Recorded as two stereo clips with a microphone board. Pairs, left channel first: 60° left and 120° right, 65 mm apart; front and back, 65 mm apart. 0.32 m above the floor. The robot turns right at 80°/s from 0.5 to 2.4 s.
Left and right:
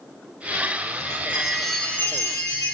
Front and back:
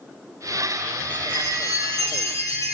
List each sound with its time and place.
1.0 s a chime: 80° right, 4.5 m; by 2.8 s 35° left, 4.5 m